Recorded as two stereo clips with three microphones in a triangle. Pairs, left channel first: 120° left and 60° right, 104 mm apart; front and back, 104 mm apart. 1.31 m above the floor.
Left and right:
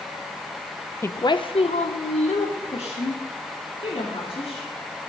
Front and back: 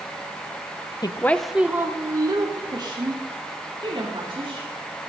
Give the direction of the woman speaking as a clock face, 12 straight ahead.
10 o'clock.